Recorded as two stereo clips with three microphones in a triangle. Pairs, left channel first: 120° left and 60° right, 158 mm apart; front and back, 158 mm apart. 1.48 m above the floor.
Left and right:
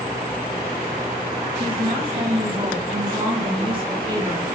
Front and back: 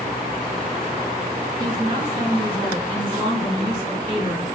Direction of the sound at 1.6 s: 120° right.